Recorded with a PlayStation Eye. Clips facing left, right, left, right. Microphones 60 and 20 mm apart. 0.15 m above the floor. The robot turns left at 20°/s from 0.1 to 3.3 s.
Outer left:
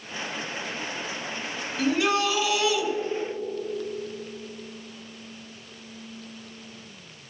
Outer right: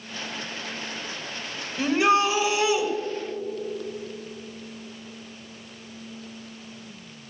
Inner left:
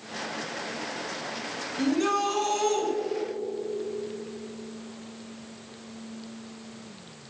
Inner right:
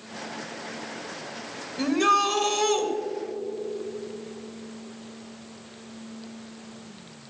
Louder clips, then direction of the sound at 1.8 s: Outer right 3 dB, inner right 4 dB; 20° right (ahead or behind).